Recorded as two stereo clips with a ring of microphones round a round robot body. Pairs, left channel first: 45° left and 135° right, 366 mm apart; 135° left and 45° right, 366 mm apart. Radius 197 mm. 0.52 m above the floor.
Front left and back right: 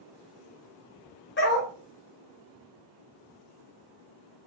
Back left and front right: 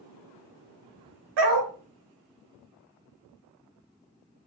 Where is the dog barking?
20° right, 0.9 m.